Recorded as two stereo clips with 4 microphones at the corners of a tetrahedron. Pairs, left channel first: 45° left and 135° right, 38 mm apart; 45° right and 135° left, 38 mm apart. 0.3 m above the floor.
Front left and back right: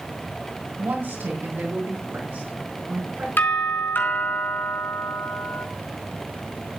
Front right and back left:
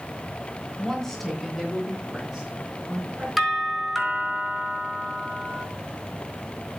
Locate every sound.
0.8 s a woman speaking: 120° right, 2 m; by 3.3 s 155° right, 4 m
3.4 s a doorbell: 55° left, 4 m